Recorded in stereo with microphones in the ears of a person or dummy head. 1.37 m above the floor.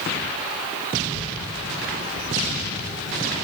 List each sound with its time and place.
1.0 s a child speaking: 65° left (ahead or behind), 8 m; by 3.4 s 55° left (ahead or behind), 11 m